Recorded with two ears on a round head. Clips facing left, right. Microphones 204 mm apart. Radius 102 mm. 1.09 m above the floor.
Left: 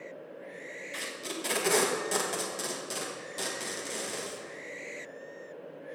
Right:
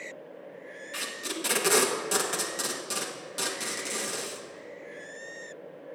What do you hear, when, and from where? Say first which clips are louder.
0.9 s tape being pulled: right 2 dB; 10° right (ahead or behind), 1.4 m